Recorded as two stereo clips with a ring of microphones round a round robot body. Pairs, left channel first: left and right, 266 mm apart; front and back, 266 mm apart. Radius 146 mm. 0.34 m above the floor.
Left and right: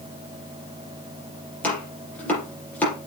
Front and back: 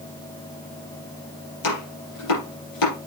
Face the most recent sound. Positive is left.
turn(degrees=5)